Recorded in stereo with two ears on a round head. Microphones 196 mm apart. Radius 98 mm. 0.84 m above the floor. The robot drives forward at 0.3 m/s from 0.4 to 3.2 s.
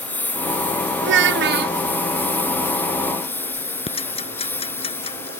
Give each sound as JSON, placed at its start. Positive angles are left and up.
{"t": 0.0, "sound": "a lawn mower", "side_deg": 5}
{"t": 1.0, "sound": "a child speaking", "side_deg": -55}
{"t": 3.9, "sound": "ticking", "side_deg": 25}